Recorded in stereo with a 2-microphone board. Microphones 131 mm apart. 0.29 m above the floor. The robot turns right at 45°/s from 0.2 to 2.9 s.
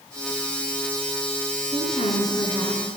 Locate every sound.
1.6 s a woman speaking: 110° left, 4.5 m; by 2.8 s 165° left, 4.5 m